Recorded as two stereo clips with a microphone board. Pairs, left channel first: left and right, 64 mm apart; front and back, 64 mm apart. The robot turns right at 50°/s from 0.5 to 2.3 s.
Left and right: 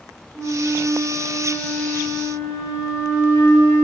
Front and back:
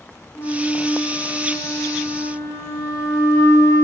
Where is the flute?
60° right, 3.5 m; by 3.8 s 30° left, 3.5 m.